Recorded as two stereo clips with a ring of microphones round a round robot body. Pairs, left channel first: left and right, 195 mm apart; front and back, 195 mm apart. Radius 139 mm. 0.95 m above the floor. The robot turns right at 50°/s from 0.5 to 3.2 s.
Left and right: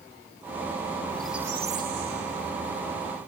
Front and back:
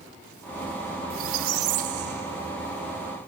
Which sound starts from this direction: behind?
A squeak, at 1.1 s.